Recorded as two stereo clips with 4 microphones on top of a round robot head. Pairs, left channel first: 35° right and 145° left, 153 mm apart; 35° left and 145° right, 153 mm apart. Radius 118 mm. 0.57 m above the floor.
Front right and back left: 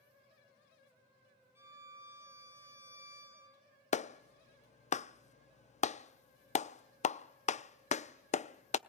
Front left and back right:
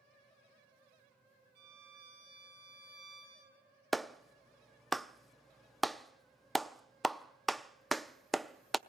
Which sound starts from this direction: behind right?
A violin, at 1.6 s.